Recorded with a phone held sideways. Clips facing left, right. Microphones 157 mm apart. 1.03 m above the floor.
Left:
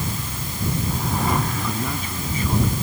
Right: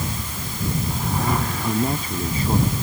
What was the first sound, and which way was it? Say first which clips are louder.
A man speaking: right 4 dB; 35° right (ahead or behind).